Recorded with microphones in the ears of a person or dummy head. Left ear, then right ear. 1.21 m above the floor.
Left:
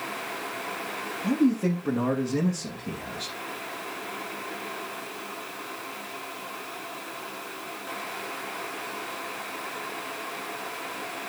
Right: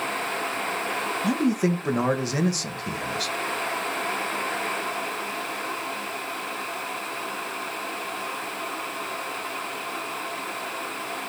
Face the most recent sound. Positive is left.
turn(degrees=-70)  # may be behind; listen again after turning